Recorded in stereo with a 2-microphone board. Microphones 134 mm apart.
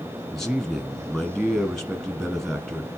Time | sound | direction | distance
0.3 | a man speaking | centre (ahead or behind) | 1.7 m